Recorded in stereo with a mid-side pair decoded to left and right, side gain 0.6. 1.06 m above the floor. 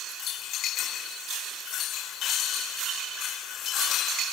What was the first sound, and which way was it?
Only background noise.